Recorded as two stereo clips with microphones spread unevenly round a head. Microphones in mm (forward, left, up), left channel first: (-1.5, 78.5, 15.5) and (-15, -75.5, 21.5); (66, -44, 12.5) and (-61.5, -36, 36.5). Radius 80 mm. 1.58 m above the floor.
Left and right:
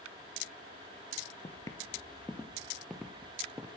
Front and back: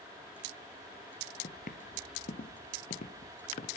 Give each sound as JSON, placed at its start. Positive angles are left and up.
{"t": 1.4, "sound": "footsteps", "azimuth_deg": 20, "distance_m": 2.5}